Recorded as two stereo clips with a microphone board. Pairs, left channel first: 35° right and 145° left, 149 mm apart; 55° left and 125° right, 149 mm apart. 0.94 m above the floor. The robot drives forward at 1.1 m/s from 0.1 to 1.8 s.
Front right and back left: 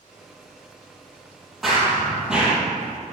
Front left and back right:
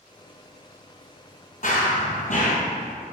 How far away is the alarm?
I don't hear an alarm.